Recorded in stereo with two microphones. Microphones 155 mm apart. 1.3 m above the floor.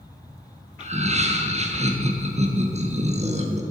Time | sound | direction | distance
0.8 | laughter | 45° right (ahead or behind) | 1.3 m